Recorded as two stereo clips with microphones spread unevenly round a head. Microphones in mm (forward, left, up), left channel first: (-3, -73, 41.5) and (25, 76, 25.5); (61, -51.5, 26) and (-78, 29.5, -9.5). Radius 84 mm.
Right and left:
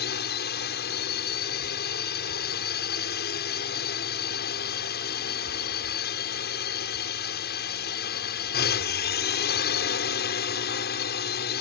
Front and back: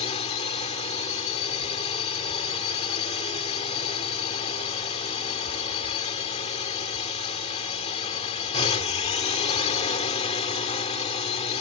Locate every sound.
0.0 s a drone: 85° right